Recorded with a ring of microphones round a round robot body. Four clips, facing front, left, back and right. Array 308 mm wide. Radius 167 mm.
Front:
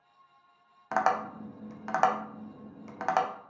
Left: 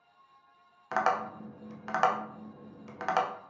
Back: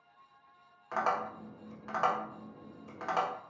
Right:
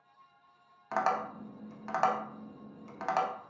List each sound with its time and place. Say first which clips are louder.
0.9 s tapping: left 2 dB, front 5 dB; 15° left, 0.6 m